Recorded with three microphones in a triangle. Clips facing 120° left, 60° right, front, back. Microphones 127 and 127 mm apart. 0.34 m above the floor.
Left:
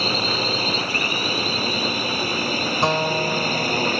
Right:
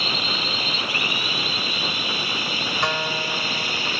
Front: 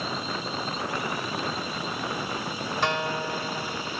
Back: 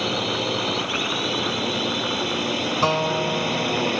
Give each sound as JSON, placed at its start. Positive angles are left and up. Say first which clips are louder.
{"t": 0.0, "sound": "a drone", "louder": "left 5 dB, back 7 dB", "azimuth_deg": 170}
{"t": 2.8, "sound": "a guitar", "louder": "left 6 dB, back 6 dB", "azimuth_deg": 155}